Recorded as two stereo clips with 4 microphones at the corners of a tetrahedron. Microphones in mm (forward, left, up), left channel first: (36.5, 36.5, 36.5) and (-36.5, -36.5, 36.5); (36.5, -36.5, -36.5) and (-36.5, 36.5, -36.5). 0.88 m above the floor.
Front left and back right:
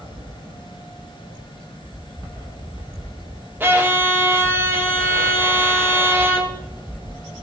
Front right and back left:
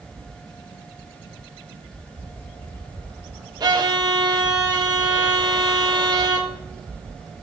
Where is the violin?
165° left, 1.3 m.